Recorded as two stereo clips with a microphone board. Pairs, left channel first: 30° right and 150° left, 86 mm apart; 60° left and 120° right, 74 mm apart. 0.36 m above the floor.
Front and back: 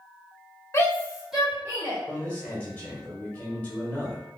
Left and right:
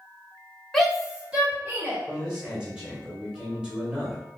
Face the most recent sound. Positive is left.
turn(degrees=-60)